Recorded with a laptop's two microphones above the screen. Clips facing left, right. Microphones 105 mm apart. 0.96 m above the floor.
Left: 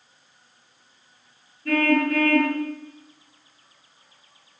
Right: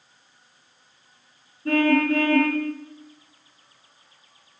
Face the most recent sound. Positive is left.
turn(degrees=-30)  # may be behind; listen again after turning